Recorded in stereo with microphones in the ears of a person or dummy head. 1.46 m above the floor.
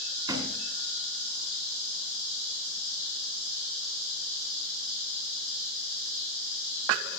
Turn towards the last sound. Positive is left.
turn(degrees=-25)  # may be behind; listen again after turning